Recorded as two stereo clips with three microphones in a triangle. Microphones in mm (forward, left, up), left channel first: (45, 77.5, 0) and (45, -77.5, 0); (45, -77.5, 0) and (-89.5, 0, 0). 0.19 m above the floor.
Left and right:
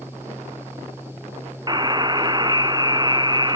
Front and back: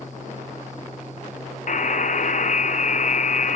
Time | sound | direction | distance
1.7 | a buzzer | 35° right | 0.7 m